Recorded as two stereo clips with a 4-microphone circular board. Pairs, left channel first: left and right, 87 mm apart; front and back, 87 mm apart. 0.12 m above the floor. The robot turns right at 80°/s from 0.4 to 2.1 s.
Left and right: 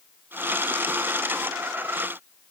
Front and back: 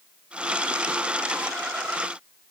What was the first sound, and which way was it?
Only background noise.